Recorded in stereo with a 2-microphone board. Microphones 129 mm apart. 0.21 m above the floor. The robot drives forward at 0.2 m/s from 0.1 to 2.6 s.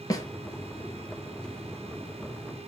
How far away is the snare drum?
About 0.5 m.